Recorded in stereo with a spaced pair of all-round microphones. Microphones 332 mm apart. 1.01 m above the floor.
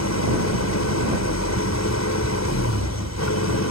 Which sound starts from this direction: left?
An engine running, at 0.0 s.